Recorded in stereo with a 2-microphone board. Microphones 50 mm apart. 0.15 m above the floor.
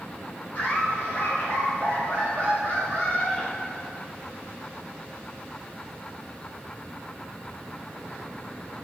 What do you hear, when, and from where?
0.6 s laughter: 25° left (ahead or behind), 1.8 m; by 4.0 s 10° left (ahead or behind), 1.5 m